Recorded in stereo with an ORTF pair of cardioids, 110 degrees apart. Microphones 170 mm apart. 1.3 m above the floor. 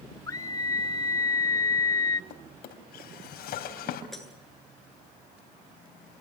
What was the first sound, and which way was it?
A scream, 20° left.